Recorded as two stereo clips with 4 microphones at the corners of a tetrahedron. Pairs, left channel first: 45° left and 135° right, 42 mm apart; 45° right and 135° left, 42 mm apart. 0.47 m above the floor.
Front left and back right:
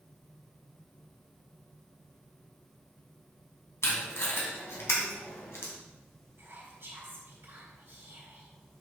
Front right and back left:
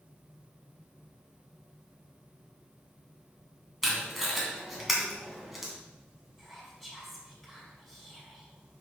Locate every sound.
3.8 s tape being pulled: 50° left, 2.5 m
6.4 s whispering: 135° right, 3 m